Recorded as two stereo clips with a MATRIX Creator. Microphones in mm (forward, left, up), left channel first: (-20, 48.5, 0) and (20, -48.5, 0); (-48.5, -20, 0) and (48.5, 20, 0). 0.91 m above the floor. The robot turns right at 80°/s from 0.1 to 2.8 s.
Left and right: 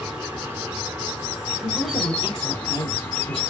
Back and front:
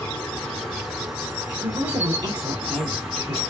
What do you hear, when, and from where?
0.0 s an insect: 125° right, 1.2 m; by 3.5 s 95° left, 1.2 m
1.6 s a woman speaking: 15° left, 1.9 m; by 3.4 s 110° left, 1.9 m